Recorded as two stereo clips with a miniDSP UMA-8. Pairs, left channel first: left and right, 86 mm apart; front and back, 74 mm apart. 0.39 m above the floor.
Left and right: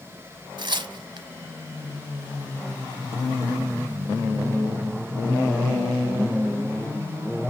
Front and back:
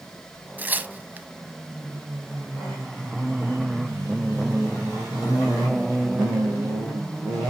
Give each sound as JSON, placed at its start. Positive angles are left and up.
{"t": 0.6, "sound": "tearing paper", "azimuth_deg": -115, "distance_m": 0.8}